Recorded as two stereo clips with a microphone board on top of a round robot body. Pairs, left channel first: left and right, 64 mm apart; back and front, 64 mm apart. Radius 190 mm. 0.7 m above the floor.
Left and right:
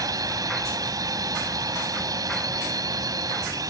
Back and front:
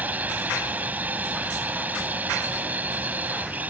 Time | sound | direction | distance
0.0 | a drone | 65° right | ?